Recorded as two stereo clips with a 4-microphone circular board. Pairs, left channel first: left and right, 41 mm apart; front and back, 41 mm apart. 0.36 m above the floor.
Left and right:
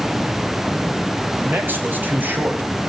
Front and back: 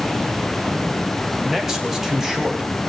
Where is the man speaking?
105° right, 2.5 m.